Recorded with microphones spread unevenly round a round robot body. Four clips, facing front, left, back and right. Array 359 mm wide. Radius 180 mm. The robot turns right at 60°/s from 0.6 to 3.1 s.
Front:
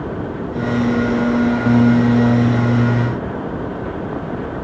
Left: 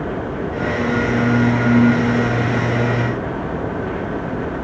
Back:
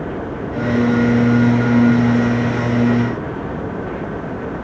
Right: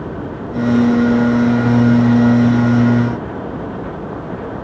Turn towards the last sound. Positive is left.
No sound to turn to.